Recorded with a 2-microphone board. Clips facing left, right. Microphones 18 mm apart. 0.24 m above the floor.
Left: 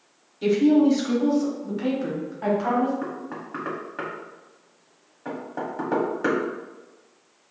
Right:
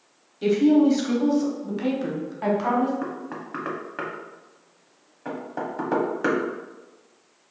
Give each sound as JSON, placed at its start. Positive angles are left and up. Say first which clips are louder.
{"t": 0.4, "sound": "a woman speaking", "louder": "even", "side_deg": -10, "distance_m": 0.9}
{"t": 3.0, "sound": "knocking", "louder": "even", "side_deg": -20, "distance_m": 0.7}